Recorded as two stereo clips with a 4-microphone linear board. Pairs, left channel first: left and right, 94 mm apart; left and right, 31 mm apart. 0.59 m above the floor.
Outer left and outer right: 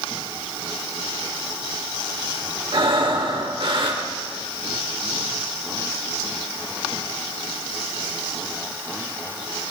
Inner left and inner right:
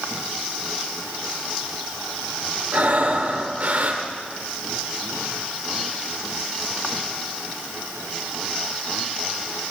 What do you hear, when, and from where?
2.7 s breathing: 60° right (ahead or behind), 1.8 m